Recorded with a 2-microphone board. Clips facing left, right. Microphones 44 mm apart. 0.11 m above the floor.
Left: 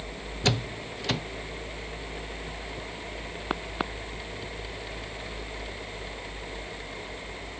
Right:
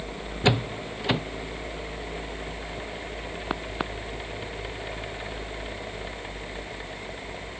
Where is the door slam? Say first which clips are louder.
Right 4 dB; 20° right (ahead or behind).